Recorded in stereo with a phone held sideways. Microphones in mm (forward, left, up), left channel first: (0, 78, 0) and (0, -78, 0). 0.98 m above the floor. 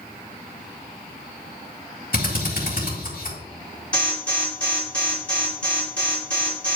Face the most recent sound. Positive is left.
turn(degrees=5)  # may be behind; listen again after turning